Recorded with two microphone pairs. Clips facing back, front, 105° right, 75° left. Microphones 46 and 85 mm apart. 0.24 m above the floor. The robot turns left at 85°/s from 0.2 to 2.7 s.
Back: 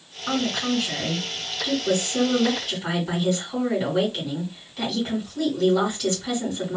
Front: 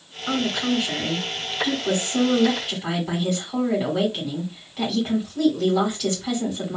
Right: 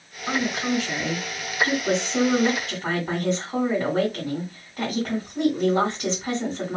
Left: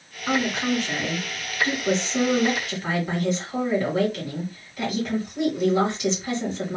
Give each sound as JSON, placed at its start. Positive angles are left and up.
{"t": 0.3, "sound": "a woman speaking", "azimuth_deg": 125, "distance_m": 2.0}